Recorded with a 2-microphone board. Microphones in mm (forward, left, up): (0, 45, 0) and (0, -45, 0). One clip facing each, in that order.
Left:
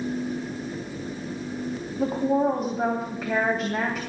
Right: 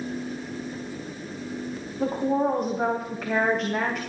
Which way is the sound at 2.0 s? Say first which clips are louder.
Left 1 dB; 5° left (ahead or behind).